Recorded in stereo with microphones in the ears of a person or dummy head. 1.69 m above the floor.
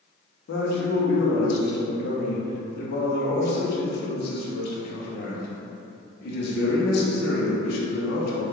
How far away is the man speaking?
About 0.7 m.